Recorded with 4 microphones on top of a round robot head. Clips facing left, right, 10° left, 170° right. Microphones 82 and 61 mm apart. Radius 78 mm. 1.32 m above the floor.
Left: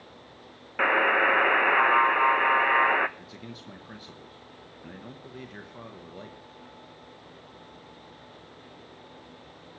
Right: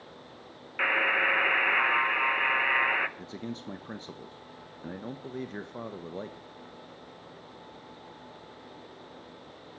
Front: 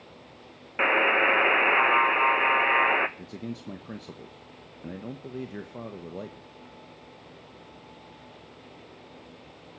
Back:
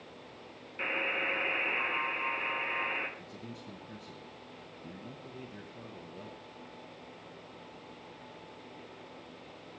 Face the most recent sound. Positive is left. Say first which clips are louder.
# right 5 dB, front 8 dB
turn(degrees=-30)